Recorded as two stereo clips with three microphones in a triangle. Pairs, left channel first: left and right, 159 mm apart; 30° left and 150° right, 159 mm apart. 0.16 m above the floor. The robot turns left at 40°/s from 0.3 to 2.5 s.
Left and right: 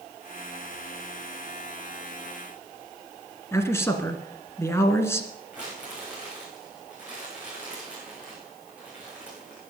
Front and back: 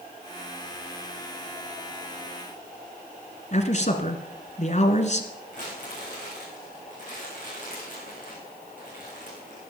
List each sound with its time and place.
3.5 s a man speaking: 20° left, 1.7 m
5.5 s crumpling: 10° right, 8.5 m